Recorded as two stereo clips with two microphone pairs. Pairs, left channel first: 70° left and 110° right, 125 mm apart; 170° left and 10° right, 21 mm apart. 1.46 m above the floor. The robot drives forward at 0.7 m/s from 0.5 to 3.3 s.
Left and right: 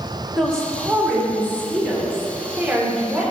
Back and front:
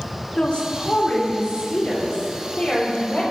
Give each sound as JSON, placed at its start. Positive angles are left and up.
{"t": 0.4, "sound": "a woman speaking", "azimuth_deg": 155, "distance_m": 2.5}